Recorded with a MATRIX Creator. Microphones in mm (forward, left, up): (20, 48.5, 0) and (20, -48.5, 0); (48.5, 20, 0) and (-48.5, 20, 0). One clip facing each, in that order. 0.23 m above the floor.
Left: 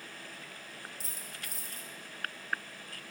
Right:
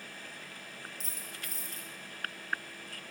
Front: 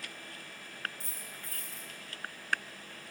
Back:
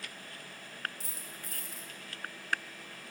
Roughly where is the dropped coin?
Behind.